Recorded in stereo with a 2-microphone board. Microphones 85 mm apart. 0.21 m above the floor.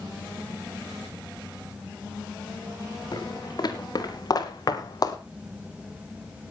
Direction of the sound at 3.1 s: 55° left (ahead or behind).